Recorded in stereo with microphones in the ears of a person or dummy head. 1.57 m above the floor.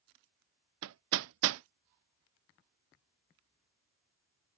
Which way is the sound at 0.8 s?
75° right (ahead or behind).